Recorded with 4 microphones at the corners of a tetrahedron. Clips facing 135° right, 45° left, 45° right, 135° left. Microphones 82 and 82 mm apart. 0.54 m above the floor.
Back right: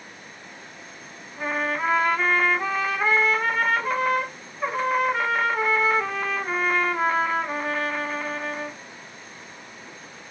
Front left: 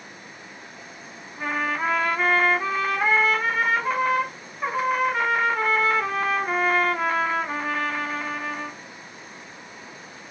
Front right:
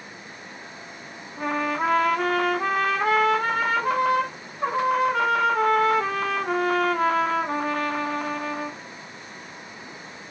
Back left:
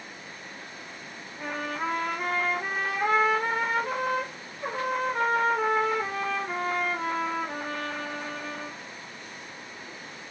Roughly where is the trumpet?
Ahead right.